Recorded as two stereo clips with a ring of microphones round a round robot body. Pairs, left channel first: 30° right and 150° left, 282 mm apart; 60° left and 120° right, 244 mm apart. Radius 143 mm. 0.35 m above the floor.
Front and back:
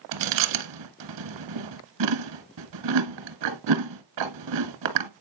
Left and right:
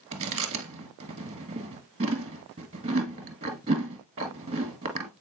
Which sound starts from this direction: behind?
Chewing, at 0.1 s.